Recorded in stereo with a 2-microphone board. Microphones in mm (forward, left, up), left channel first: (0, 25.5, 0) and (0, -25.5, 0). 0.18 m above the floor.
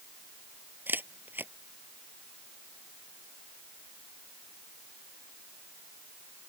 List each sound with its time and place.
0.9 s a camera shutter: 40° right (ahead or behind)